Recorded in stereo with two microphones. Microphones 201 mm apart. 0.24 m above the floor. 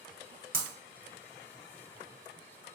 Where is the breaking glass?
45° right (ahead or behind), 0.8 m.